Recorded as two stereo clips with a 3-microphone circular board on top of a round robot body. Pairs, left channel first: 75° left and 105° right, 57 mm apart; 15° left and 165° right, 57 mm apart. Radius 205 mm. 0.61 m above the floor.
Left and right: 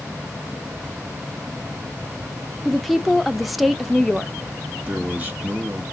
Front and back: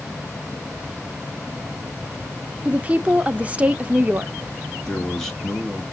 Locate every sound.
2.6 s a woman speaking: 165° left, 0.8 m
4.8 s a man speaking: 60° right, 1.5 m